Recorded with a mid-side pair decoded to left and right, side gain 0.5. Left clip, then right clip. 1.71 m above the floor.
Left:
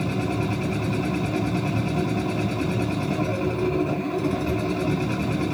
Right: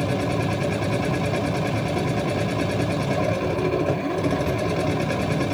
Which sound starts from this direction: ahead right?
A machine running, at 0.0 s.